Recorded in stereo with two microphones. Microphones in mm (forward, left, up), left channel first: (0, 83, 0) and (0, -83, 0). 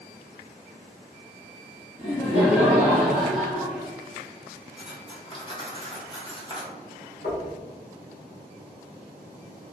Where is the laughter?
25° left (ahead or behind), 1.3 m; by 3.9 s 55° left (ahead or behind), 1.8 m.